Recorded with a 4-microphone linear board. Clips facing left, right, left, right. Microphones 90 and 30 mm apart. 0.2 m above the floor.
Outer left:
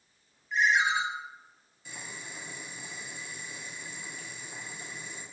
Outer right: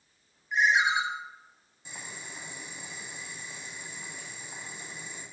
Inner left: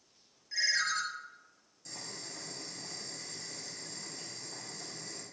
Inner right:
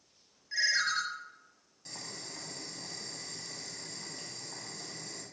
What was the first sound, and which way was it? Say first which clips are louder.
A ringtone: outer right 1 dB, inner right 2 dB; 20° right (ahead or behind).